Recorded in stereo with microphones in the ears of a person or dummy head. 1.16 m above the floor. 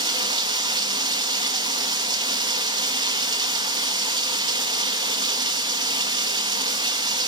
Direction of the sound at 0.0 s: 25° right (ahead or behind).